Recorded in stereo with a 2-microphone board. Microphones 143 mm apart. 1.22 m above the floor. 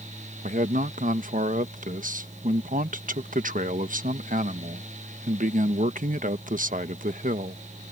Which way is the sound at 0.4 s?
70° right (ahead or behind).